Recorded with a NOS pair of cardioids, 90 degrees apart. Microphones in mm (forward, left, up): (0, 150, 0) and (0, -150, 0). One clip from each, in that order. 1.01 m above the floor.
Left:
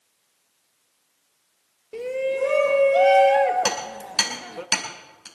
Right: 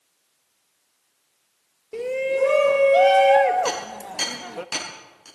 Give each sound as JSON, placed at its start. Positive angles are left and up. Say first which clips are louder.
{"t": 1.9, "sound": "a shout", "louder": "right 2 dB", "azimuth_deg": -15, "distance_m": 0.9}
{"t": 3.6, "sound": "hammering", "louder": "left 1 dB", "azimuth_deg": 55, "distance_m": 5.5}